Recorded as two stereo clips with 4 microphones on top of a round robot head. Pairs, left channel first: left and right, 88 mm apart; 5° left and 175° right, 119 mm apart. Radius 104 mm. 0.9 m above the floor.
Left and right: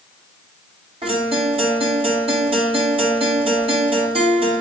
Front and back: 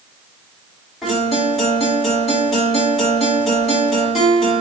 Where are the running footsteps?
I don't hear running footsteps.